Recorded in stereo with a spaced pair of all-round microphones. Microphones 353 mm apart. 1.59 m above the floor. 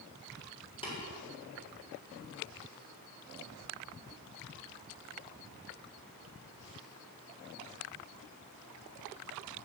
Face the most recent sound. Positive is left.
turn(degrees=15)  # may be behind; listen again after turning